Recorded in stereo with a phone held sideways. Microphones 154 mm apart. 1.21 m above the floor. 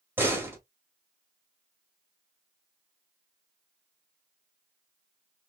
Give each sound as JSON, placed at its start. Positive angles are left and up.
{"t": 0.2, "sound": "a door slam", "side_deg": -15, "distance_m": 2.0}